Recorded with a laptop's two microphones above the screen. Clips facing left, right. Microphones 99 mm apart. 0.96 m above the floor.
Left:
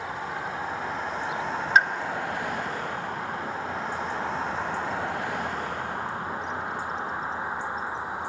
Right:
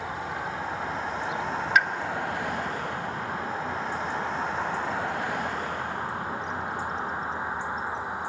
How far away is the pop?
About 0.7 m.